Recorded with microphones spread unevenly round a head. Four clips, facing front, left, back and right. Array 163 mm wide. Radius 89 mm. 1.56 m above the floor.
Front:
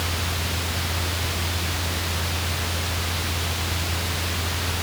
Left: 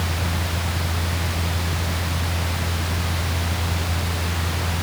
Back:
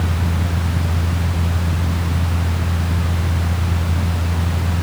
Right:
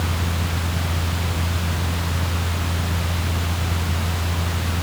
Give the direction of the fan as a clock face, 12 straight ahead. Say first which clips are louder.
Right 1 dB, back 6 dB; 6 o'clock.